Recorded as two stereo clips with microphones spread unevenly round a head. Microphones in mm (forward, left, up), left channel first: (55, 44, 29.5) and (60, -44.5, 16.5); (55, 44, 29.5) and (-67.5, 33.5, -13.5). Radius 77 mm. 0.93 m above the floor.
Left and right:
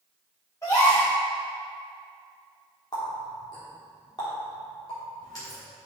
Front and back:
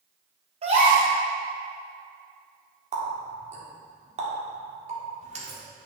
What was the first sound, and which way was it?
A gasp, 160° left.